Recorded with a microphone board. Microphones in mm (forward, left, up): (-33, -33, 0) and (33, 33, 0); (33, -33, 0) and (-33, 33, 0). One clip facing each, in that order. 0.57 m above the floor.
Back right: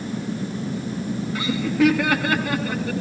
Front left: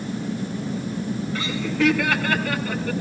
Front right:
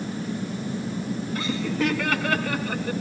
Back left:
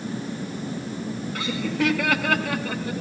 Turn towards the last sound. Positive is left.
turn(degrees=150)